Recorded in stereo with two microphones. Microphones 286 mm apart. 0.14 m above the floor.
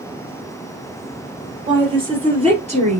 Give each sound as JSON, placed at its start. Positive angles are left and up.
{"t": 1.7, "sound": "a woman speaking", "side_deg": -15, "distance_m": 3.0}